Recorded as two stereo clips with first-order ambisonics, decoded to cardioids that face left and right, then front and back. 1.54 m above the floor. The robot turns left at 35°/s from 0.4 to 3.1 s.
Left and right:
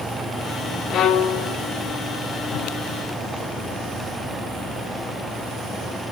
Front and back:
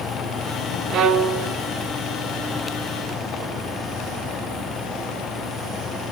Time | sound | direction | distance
0.9 | a violin | 140° left | 0.9 m